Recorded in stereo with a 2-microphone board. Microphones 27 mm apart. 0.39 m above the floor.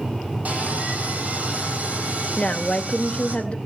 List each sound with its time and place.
0.5 s sawing: 65° right (ahead or behind), 4 m
2.4 s a woman speaking: 35° left (ahead or behind), 1.0 m